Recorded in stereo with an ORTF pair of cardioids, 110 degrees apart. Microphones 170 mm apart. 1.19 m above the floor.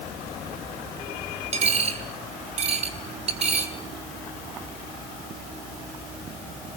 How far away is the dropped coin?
About 5 m.